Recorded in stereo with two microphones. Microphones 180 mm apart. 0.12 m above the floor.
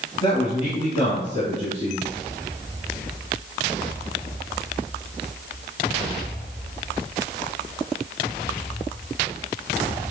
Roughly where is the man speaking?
Left.